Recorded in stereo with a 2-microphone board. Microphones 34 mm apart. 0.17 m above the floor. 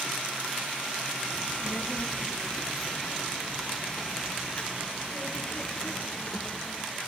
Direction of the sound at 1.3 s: 35° left (ahead or behind).